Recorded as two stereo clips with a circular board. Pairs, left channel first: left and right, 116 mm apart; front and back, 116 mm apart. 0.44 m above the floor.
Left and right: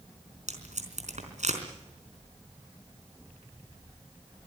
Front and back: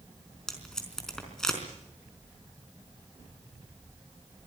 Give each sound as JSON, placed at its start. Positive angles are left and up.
{"t": 0.5, "sound": "tape being pulled", "azimuth_deg": -85, "distance_m": 4.0}